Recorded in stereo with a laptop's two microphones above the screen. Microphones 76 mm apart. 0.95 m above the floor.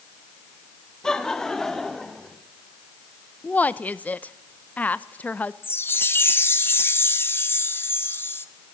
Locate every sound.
1.0 s laughter: 5° left (ahead or behind), 1.4 m
3.4 s a woman speaking: 20° left (ahead or behind), 0.6 m
5.6 s a chime: 30° left (ahead or behind), 0.7 m